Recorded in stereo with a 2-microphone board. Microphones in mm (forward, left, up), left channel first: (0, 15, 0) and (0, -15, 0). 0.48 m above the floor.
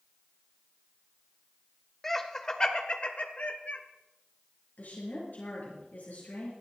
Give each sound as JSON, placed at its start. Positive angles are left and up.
{"t": 2.0, "sound": "laughter", "side_deg": 10, "distance_m": 1.6}
{"t": 4.8, "sound": "a woman speaking", "side_deg": 65, "distance_m": 7.0}